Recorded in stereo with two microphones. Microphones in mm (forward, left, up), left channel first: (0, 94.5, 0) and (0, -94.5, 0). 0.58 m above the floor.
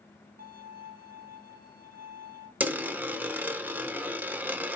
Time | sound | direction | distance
0.4 | a violin | 50° right (ahead or behind) | 1.3 m
2.6 | a dropped coin | 10° right (ahead or behind) | 0.7 m